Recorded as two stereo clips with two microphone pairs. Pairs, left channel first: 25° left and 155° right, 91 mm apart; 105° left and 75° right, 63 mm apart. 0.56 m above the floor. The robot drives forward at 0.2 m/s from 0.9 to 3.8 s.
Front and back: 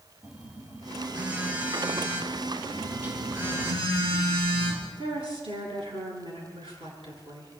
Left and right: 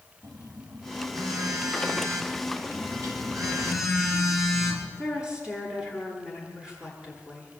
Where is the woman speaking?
150° right, 9 m.